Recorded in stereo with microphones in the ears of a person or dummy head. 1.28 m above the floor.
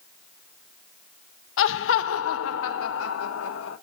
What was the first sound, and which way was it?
Laughter, 55° left (ahead or behind).